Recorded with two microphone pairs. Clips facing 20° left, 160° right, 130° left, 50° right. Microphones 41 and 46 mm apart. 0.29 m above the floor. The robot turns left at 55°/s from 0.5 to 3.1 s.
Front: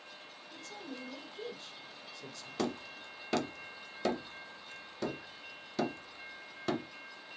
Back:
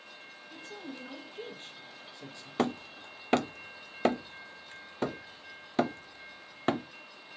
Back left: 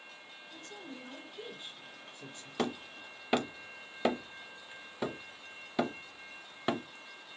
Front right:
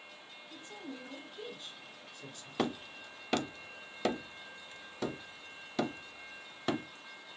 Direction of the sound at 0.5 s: 100° right.